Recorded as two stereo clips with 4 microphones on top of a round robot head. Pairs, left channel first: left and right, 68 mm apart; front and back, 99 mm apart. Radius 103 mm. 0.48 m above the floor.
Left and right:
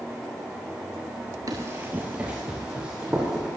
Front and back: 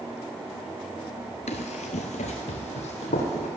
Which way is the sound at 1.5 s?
30° right.